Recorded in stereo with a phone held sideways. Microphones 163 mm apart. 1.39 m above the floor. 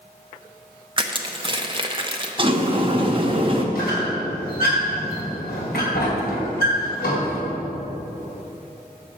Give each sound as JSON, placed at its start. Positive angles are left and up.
{"t": 1.0, "sound": "crushing", "side_deg": -30, "distance_m": 0.6}
{"t": 2.4, "sound": "a sliding door", "side_deg": -30, "distance_m": 0.8}
{"t": 3.8, "sound": "a squeak", "side_deg": 65, "distance_m": 3.0}